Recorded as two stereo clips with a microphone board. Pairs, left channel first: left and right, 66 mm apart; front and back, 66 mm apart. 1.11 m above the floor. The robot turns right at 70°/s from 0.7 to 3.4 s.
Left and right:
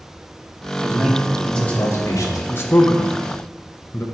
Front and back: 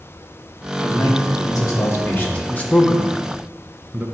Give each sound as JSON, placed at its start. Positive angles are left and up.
{"t": 0.8, "sound": "a man speaking", "azimuth_deg": -40, "distance_m": 1.5}
{"t": 2.5, "sound": "a man speaking", "azimuth_deg": 50, "distance_m": 0.9}